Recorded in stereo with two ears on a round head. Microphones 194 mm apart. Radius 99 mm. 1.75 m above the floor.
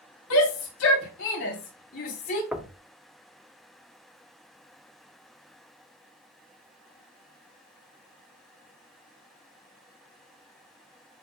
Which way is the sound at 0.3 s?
75° left (ahead or behind).